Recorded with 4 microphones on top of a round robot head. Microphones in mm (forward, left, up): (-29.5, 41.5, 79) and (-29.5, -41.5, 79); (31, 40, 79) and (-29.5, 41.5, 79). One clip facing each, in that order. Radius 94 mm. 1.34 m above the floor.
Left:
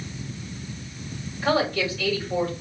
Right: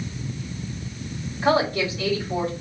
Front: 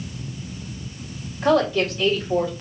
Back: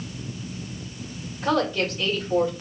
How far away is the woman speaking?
About 3 m.